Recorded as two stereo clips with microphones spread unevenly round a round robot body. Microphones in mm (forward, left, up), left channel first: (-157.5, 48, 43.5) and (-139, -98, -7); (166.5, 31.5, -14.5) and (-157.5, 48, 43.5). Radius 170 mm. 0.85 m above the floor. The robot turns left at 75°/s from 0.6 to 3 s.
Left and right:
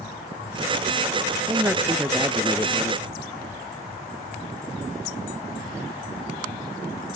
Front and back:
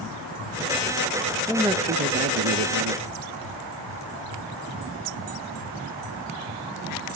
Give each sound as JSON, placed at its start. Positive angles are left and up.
{"t": 1.5, "sound": "a man speaking", "azimuth_deg": -80, "distance_m": 0.7}